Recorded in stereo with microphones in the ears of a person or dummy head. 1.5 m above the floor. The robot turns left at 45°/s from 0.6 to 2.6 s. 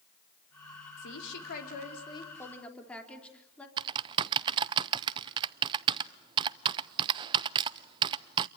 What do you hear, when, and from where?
1.0 s a woman speaking: 80° left, 4 m; by 3.7 s 5° left, 4 m
3.8 s typing on a keyboard: 30° right (ahead or behind), 0.6 m